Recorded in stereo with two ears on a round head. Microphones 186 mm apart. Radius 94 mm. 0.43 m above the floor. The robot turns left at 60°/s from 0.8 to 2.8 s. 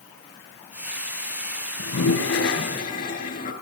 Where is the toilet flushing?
100° left, 4 m; by 3.5 s 40° left, 4 m.